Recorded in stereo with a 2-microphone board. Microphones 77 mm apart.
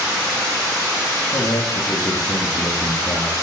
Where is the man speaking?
45° left (ahead or behind), 3.5 m.